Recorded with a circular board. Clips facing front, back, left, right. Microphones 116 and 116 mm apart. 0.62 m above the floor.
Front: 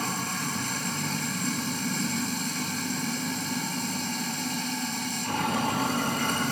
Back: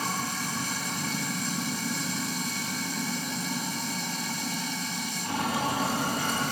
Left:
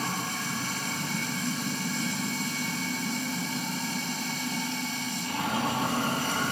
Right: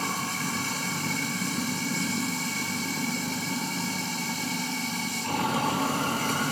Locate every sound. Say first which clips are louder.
0.0 s running water: even, right 1 dB; 100° right, 5.5 m